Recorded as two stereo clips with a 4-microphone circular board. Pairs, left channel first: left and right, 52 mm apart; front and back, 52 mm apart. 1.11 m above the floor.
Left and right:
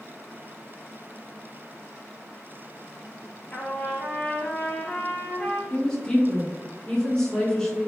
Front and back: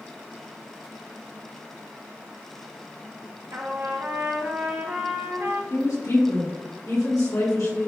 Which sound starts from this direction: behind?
A trumpet, at 3.5 s.